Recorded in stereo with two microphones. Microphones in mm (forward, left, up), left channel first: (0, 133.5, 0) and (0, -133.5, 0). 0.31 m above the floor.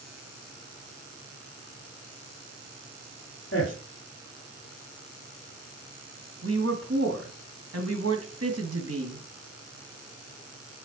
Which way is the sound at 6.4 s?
65° right (ahead or behind).